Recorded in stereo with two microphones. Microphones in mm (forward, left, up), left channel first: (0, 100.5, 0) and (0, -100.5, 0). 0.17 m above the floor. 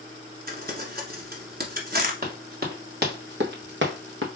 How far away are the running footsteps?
About 2.5 m.